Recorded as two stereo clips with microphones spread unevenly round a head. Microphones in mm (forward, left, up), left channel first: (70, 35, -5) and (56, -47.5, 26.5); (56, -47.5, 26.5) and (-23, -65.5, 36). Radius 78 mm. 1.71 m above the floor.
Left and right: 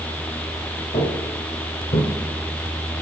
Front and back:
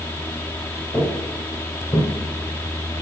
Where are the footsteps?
95° left, 3 m; by 2.1 s 70° left, 2.5 m.